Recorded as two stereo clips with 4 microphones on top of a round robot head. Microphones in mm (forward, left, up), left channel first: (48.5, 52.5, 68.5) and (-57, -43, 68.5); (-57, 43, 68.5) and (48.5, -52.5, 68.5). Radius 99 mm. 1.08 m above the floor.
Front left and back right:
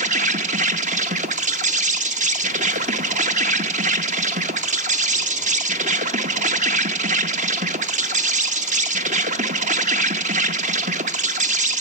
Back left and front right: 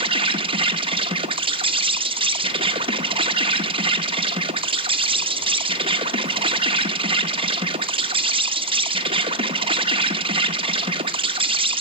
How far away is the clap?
No clap in this recording.